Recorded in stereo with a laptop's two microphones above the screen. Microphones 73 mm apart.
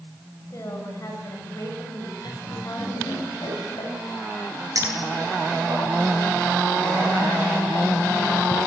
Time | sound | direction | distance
0.5 | a woman speaking | 45° left (ahead or behind) | 6 m
2.2 | laughter | 85° left | 8.5 m
4.8 | a clink | 50° right (ahead or behind) | 10 m